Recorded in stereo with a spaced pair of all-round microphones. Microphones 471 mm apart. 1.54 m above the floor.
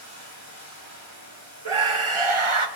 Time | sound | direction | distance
0.0 | running water | 35° left (ahead or behind) | 8.5 m
1.6 | a scream | 80° right | 1.3 m